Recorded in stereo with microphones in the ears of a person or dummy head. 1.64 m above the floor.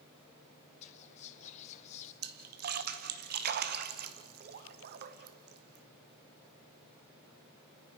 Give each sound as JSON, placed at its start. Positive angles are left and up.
{"t": 0.8, "sound": "whispering", "side_deg": 40, "distance_m": 0.7}
{"t": 2.2, "sound": "a splash", "side_deg": -55, "distance_m": 0.9}